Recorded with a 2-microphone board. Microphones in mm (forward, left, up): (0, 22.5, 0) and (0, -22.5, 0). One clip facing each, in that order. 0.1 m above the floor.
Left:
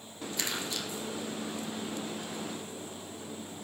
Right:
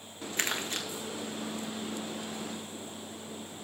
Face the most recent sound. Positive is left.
turn(degrees=-45)  # may be behind; listen again after turning